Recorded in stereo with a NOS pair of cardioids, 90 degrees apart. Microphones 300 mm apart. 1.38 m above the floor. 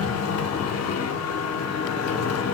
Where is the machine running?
55° left, 0.9 m.